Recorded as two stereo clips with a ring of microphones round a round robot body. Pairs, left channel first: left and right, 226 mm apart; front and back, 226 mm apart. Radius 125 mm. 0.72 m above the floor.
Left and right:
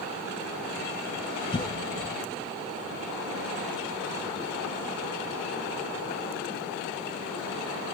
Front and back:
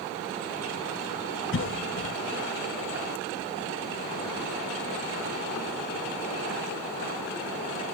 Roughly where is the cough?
Ahead.